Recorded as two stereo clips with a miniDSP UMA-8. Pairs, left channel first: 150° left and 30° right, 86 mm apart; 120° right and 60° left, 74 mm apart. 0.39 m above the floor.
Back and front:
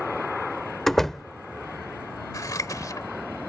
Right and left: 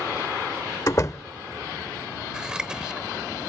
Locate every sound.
0.9 s a door slam: 125° right
2.3 s scissors: 135° left